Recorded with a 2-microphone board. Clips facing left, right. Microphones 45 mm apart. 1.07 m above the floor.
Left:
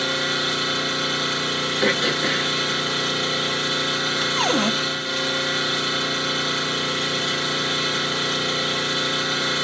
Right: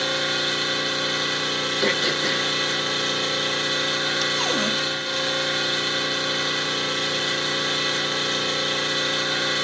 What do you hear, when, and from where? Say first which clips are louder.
0.0 s an engine running: left 1 dB; centre (ahead or behind), 4.5 m
1.8 s throat clearing: left 2 dB; 20° left (ahead or behind), 1.0 m
4.4 s a cupboard door: left 3 dB; 40° left (ahead or behind), 0.7 m